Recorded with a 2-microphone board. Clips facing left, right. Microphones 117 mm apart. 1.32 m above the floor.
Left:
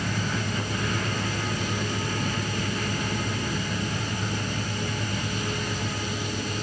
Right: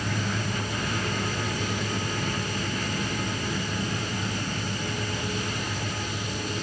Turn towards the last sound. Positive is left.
No sound to turn to.